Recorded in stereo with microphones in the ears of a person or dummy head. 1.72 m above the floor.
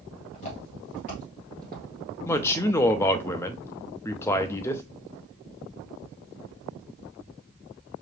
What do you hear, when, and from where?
0.3 s footsteps: 35° left (ahead or behind), 2 m; by 1.8 s centre (ahead or behind), 1.7 m
2.2 s a man speaking: 15° left (ahead or behind), 0.6 m